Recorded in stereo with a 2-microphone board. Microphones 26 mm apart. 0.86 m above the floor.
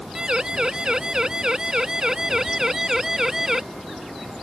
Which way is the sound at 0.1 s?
25° right (ahead or behind).